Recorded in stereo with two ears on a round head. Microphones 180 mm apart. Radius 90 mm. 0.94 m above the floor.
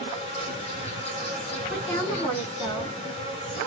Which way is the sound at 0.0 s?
30° left (ahead or behind).